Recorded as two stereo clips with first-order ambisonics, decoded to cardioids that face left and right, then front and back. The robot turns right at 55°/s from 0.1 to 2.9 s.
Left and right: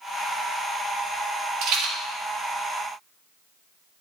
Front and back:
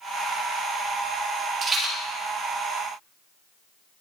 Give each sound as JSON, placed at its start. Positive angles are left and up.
{"t": 1.6, "sound": "a rattle", "azimuth_deg": -120, "distance_m": 1.7}